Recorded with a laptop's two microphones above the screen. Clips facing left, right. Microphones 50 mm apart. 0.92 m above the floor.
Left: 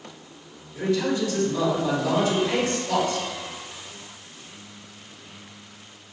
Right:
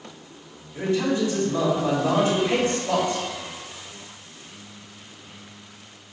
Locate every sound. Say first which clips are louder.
0.8 s a man speaking: right 1 dB; 35° right (ahead or behind), 1.8 m